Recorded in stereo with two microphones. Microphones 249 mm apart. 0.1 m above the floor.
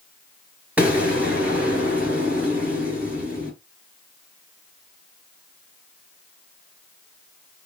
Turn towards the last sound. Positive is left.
turn(degrees=-5)  # may be behind; listen again after turning